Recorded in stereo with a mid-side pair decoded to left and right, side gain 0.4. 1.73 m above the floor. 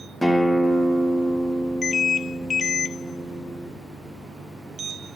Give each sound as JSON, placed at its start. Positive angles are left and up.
{"t": 0.2, "sound": "a guitar", "azimuth_deg": 10, "distance_m": 1.2}